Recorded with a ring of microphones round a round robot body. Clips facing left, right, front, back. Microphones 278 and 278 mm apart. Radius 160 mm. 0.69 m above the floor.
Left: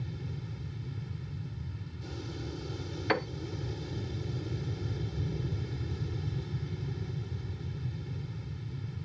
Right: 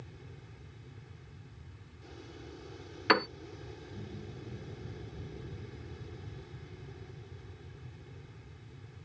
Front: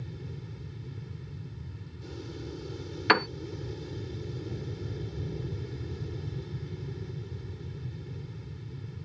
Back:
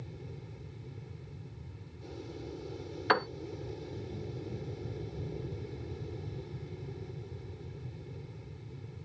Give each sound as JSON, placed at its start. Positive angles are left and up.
{"t": 0.0, "sound": "an aircraft", "azimuth_deg": 65}
{"t": 3.1, "sound": "a piano", "azimuth_deg": -25}